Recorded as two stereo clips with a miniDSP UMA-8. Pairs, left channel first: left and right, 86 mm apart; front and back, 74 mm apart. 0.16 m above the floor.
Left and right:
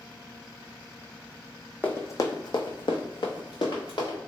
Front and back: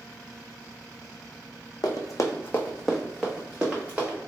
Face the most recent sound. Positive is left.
turn(degrees=115)